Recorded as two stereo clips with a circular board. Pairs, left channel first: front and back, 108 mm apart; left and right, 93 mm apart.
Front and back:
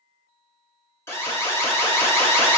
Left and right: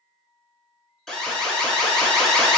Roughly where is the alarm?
Ahead.